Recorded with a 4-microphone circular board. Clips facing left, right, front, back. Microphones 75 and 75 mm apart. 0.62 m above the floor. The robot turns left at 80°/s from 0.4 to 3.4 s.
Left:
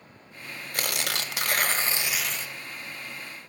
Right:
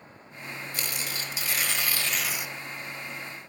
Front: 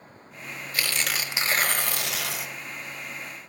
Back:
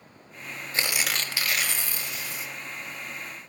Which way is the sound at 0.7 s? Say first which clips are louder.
Left 7 dB, even; 120° left.